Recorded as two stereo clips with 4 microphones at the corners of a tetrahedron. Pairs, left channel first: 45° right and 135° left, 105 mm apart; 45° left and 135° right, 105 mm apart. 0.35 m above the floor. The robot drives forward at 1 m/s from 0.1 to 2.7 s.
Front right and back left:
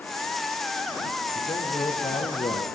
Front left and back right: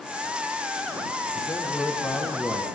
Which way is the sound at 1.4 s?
20° right.